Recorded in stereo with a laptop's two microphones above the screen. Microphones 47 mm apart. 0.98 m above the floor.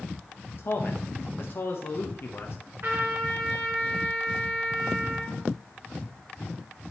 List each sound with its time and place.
0.6 s a man speaking: 55° left (ahead or behind), 0.9 m
2.8 s a trumpet: 65° right (ahead or behind), 3.5 m